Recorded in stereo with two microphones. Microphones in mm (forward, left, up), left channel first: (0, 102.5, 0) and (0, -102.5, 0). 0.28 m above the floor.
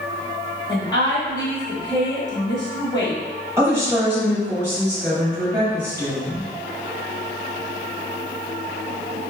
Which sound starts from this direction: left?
A woman speaking, at 0.7 s.